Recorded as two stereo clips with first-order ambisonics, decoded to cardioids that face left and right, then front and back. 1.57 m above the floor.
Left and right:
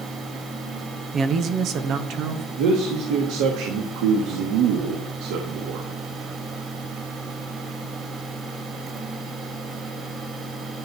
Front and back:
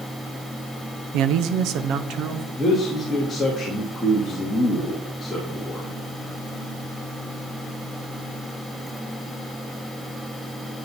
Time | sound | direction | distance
1.1 | a man speaking | 155° right | 0.8 m
2.6 | a man speaking | 80° right | 2 m